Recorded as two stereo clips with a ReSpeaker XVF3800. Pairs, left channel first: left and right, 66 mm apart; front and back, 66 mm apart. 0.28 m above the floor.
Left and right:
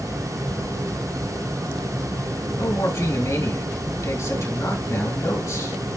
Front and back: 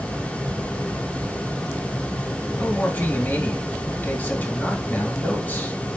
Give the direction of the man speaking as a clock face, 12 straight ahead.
10 o'clock.